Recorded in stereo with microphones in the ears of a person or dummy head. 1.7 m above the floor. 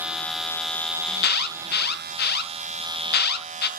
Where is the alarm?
60° left (ahead or behind), 0.8 m.